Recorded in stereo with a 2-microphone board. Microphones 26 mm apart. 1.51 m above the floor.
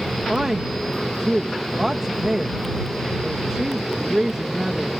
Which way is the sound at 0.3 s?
25° right (ahead or behind).